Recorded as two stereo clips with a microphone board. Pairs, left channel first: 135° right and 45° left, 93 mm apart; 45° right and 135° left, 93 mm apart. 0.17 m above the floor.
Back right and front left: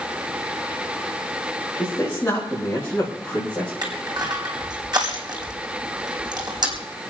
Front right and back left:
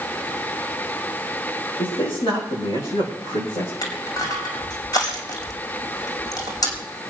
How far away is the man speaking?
About 9 m.